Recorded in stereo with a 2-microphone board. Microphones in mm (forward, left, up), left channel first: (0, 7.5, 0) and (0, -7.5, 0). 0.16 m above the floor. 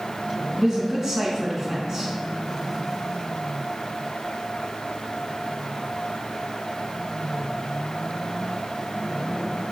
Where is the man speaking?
35° right (ahead or behind), 1.4 m.